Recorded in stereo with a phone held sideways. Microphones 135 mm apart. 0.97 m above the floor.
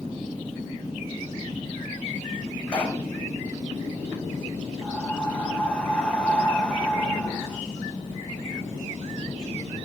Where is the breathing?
10° left (ahead or behind), 2.5 m.